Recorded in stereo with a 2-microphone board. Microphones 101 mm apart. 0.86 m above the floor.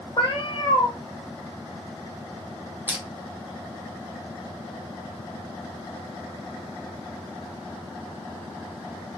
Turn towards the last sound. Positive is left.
turn(degrees=-20)  # may be behind; listen again after turning